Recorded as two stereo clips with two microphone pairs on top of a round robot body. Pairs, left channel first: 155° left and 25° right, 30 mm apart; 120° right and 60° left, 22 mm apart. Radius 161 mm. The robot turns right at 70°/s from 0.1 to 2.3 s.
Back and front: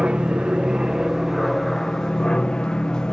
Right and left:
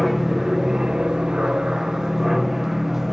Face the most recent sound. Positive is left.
turn(degrees=130)